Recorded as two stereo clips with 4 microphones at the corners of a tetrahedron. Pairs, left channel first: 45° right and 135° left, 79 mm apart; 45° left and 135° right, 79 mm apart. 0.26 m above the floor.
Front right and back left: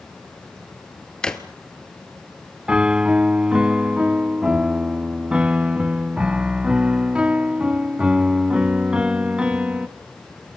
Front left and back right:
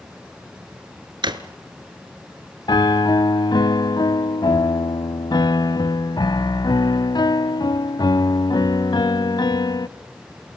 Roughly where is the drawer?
Behind right.